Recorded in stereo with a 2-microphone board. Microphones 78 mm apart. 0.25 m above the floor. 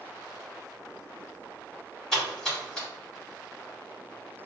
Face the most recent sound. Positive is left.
turn(degrees=5)  # may be behind; listen again after turning